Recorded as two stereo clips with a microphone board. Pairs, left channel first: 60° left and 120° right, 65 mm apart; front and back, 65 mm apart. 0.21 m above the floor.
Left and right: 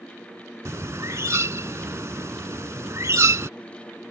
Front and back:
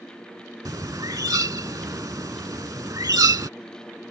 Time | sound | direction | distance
0.7 | a bird | 160° right | ?